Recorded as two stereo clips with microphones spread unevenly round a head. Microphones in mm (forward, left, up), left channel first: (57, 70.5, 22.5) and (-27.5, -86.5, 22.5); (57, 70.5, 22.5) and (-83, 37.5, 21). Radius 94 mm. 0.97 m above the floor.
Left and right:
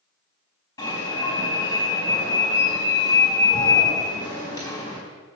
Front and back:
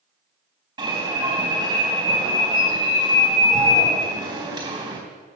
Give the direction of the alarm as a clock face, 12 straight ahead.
8 o'clock.